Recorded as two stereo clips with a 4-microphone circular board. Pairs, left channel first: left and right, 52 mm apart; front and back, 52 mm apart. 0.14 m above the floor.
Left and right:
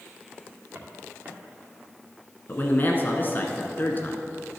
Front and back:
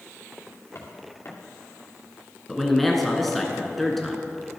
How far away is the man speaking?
About 1.3 m.